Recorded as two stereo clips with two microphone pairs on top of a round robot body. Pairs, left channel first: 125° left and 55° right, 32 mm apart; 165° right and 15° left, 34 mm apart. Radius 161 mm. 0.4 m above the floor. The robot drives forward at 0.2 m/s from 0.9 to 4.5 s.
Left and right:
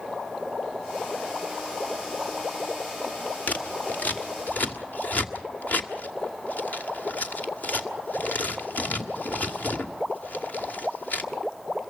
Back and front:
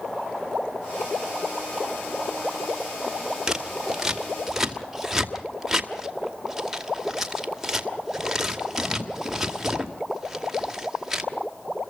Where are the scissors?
95° left, 2.5 m; by 11.2 s 100° left, 2.5 m.